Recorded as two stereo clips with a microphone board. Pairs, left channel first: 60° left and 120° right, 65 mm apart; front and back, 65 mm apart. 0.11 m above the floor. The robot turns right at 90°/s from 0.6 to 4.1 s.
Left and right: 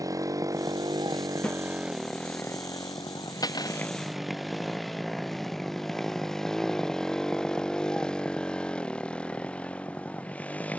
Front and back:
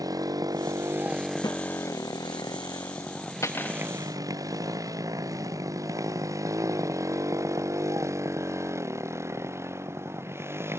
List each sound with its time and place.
0.0 s a motorcycle: 150° right; by 10.8 s 130° left
1.4 s a snare drum: 10° right; by 1.6 s 5° left
3.4 s cutlery clinking: 45° left; by 3.9 s 85° left